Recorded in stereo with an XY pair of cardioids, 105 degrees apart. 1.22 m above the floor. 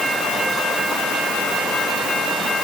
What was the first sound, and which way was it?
Only background noise.